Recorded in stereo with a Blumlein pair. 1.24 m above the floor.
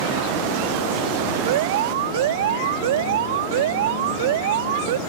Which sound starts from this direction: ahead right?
An alarm, at 1.5 s.